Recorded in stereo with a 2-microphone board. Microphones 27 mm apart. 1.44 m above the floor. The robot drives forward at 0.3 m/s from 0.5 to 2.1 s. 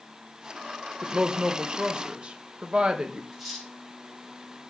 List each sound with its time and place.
1.0 s a woman speaking: 45° right (ahead or behind), 1.2 m; by 3.2 s 35° right (ahead or behind), 1.4 m
3.3 s cutlery clinking: 10° right (ahead or behind), 6.5 m